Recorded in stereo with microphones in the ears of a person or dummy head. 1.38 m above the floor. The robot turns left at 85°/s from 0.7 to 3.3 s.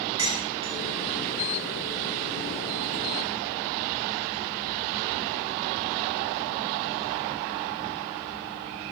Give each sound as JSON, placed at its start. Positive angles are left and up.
{"t": 0.2, "sound": "dishes clattering", "side_deg": -20, "distance_m": 3.5}